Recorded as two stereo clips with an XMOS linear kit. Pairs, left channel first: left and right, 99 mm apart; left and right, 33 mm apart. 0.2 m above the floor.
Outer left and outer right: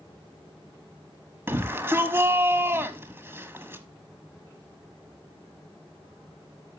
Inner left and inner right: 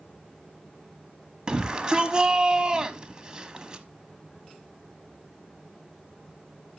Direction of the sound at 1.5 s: 25° right (ahead or behind).